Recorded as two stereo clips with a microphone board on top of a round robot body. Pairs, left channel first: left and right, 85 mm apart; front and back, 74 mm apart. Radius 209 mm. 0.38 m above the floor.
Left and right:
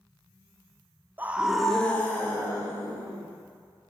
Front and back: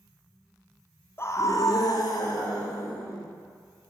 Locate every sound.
1.2 s a scream: 35° right, 0.9 m; by 3.3 s 35° left, 2.5 m